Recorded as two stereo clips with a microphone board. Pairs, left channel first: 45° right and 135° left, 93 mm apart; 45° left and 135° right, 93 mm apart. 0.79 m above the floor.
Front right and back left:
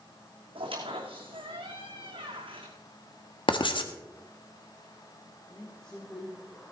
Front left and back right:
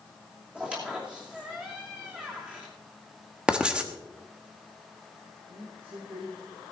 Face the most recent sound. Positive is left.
turn(degrees=-125)